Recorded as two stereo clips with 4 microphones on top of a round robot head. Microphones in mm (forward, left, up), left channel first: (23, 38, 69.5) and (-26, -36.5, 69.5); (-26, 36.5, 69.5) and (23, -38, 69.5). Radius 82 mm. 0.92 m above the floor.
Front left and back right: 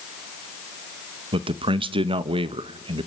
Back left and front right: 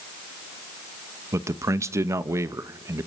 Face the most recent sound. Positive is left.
turn(degrees=-110)